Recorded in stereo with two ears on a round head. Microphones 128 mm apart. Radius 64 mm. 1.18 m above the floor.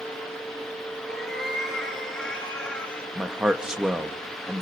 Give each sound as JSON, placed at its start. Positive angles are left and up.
{"t": 1.1, "sound": "a cat meowing", "side_deg": 0, "distance_m": 6.0}
{"t": 3.1, "sound": "a man speaking", "side_deg": -5, "distance_m": 1.1}